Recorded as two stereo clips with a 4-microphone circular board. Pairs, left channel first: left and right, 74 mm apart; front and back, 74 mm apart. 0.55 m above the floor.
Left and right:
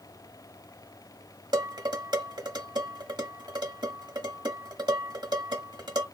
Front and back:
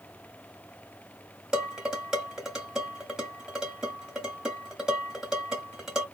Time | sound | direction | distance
1.5 | dishes clattering | 100° right | 2.5 m